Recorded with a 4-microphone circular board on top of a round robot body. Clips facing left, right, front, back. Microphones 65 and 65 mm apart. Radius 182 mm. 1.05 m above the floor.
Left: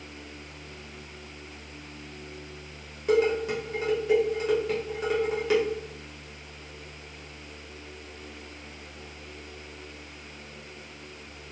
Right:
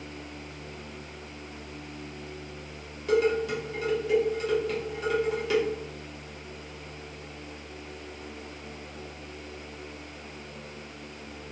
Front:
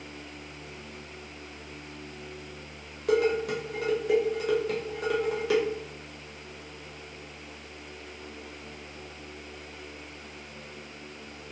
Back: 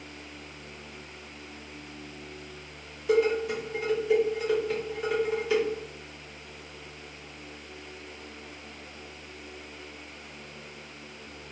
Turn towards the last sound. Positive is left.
turn(degrees=25)